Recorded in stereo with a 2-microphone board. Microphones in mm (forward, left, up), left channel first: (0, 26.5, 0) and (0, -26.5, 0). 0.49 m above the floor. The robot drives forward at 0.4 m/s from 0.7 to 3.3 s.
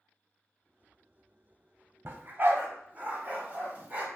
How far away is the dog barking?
About 1.1 m.